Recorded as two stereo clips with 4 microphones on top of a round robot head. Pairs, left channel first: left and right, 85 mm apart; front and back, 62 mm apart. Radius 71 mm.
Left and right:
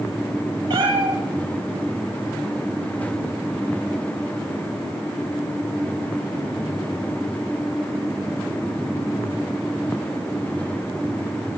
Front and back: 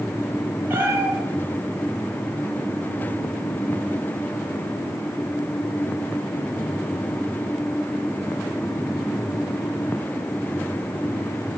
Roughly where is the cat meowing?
Behind right.